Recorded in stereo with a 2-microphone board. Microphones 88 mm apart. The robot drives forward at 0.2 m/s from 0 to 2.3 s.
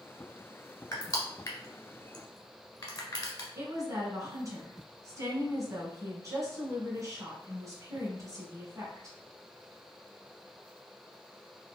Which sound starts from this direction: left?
Crushing, at 0.9 s.